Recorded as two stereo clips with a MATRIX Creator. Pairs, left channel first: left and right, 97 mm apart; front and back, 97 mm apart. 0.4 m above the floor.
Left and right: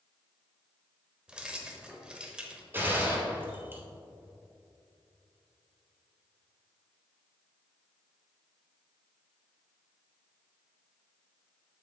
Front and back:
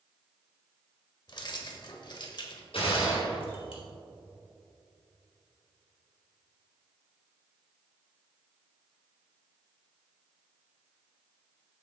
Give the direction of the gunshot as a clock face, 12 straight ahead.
1 o'clock.